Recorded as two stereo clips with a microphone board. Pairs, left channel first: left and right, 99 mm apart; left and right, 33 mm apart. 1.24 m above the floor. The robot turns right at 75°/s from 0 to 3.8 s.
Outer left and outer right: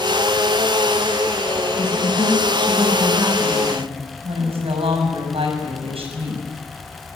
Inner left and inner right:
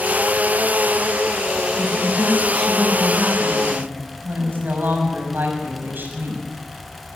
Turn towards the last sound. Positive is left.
turn(degrees=-105)